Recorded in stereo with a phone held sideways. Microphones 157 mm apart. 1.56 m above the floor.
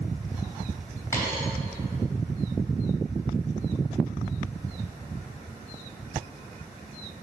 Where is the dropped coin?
15° left (ahead or behind), 3 m.